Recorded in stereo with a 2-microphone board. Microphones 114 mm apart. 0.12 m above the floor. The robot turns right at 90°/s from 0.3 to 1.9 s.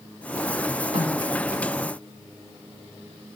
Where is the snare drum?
60° right (ahead or behind), 7 m; by 1.2 s 80° right, 7 m.